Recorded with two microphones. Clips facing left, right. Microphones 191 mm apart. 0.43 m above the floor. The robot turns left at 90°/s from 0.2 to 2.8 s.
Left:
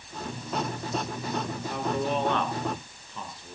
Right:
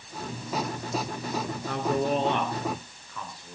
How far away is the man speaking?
About 4 m.